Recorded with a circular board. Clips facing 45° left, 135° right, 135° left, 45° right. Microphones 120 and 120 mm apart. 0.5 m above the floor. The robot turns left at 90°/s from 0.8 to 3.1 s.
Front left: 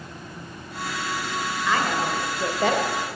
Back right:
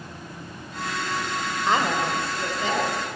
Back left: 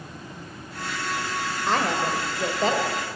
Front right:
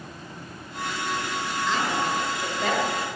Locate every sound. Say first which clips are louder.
1.7 s a woman speaking: back right 1 dB, back left 3 dB; 170° left, 1.7 m; by 2.9 s 55° left, 1.7 m